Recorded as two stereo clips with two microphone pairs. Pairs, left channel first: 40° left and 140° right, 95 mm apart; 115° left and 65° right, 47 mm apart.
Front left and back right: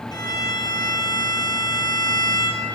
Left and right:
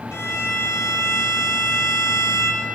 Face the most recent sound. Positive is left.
turn(degrees=90)